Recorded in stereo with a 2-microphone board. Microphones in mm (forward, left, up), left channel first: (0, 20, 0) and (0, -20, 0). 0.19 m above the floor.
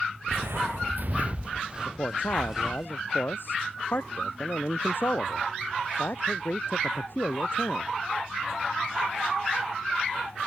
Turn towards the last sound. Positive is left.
turn(degrees=60)  # may be behind; listen again after turning